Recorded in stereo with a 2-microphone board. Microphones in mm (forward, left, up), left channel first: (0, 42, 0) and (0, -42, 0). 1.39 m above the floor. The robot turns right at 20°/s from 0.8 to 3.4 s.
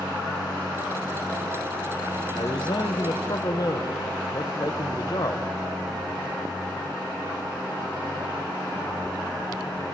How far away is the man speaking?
About 1.2 m.